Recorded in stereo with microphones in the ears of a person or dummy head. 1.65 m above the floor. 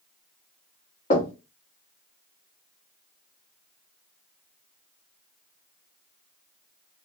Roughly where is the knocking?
Left.